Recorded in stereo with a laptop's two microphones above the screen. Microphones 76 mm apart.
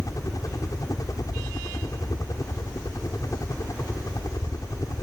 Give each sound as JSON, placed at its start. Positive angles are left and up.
{"t": 0.0, "sound": "a helicopter", "side_deg": 50}